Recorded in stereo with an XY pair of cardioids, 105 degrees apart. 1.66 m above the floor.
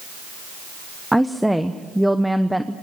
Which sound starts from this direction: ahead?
A woman speaking, at 1.1 s.